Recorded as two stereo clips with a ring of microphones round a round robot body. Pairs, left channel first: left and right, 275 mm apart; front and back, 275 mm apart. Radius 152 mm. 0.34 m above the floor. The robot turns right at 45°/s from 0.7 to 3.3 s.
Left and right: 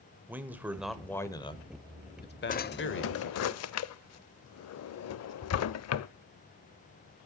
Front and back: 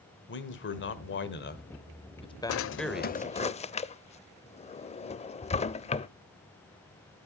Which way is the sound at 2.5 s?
30° left.